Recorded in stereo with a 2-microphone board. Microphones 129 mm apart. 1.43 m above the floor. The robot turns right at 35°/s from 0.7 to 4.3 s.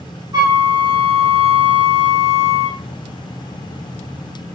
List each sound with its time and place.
0.3 s a flute: 150° right, 1.0 m; by 2.8 s 80° right, 1.0 m